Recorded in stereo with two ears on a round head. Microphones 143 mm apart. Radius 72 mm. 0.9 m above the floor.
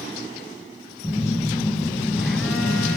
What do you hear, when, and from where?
1.0 s a phone buzzing: 5° left (ahead or behind), 2 m